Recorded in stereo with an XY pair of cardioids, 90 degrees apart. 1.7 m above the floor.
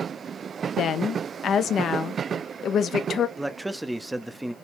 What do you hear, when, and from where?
0.8 s a woman speaking: 65° left, 0.6 m
3.4 s a man speaking: 10° right, 0.6 m